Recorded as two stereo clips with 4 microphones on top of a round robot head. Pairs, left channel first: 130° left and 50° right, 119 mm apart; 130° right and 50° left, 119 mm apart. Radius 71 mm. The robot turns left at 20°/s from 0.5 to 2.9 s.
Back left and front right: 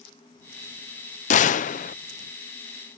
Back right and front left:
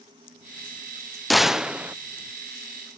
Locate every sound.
1.3 s a gunshot: 140° left; by 1.9 s 125° left